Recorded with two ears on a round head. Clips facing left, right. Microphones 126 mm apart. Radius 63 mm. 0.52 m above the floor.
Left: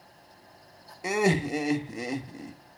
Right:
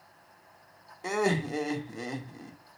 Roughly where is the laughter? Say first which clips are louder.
Left 3 dB; centre.